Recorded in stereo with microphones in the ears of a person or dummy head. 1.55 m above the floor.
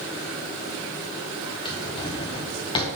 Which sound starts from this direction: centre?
A drawer, at 1.6 s.